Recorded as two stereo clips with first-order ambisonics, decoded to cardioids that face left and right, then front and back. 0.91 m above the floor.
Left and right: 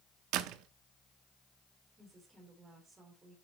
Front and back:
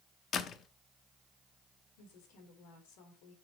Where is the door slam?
60° right, 0.8 m.